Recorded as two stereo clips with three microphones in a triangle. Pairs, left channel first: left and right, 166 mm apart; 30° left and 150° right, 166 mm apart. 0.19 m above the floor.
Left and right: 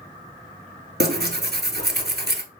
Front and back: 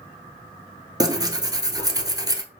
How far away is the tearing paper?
About 0.8 m.